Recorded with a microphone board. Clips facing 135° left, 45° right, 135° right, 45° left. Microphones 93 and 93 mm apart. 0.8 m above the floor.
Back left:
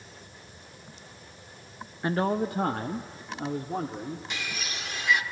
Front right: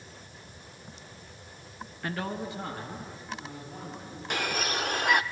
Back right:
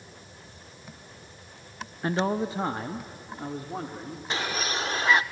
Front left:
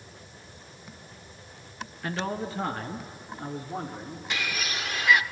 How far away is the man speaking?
About 0.7 m.